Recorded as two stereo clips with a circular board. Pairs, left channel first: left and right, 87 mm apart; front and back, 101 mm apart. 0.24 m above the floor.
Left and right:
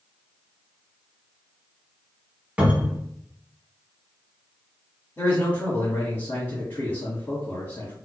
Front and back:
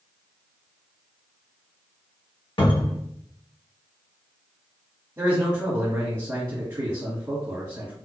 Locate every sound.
2.6 s a cupboard door: 15° right, 0.9 m
5.2 s a man speaking: 135° left, 1.2 m